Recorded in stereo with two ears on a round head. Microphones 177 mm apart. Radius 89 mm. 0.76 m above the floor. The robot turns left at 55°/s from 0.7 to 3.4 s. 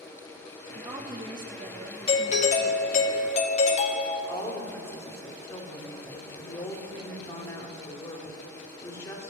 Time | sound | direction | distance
0.8 | a woman speaking | 15° right (ahead or behind) | 0.8 m
2.1 | a doorbell | 130° left | 1.0 m
4.3 | a woman speaking | 15° left (ahead or behind) | 1.6 m